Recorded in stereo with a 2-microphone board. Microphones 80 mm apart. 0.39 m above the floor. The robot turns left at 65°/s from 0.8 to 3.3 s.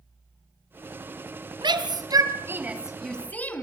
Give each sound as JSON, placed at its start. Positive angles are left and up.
{"t": 1.6, "sound": "a shout", "side_deg": -70, "distance_m": 3.0}